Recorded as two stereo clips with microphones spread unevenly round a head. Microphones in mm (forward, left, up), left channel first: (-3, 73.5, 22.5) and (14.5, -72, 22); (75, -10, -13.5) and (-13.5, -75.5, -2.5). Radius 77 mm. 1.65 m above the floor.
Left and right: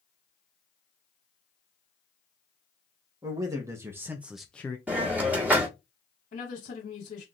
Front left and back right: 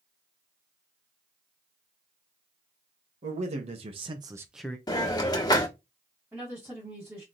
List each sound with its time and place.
3.2 s a man speaking: 150° right, 1.4 m; by 4.8 s 80° left, 0.5 m
4.9 s a hiss: 5° right, 1.5 m
6.3 s a woman speaking: 140° left, 2.5 m